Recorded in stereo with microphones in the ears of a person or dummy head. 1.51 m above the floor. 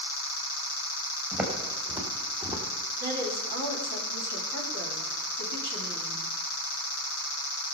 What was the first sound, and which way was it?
Footsteps, 20° right (ahead or behind).